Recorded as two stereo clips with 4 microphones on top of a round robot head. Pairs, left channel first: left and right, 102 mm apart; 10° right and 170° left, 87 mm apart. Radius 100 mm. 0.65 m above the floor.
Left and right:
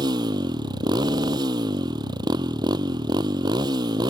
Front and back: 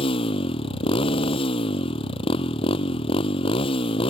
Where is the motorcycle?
35° right.